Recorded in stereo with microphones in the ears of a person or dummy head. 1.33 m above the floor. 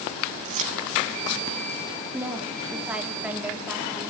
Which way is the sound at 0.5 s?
45° right (ahead or behind).